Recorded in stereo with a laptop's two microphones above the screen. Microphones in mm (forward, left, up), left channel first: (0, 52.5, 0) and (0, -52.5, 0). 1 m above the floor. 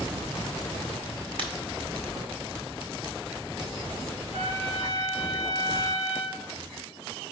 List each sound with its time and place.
1.4 s breaking glass: 55° right (ahead or behind), 1.9 m
4.3 s a trumpet: 70° right (ahead or behind), 2 m